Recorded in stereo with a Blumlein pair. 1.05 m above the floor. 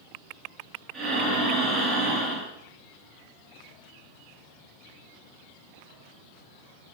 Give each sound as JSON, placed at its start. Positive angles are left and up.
{"t": 0.9, "sound": "breathing", "azimuth_deg": -35, "distance_m": 3.0}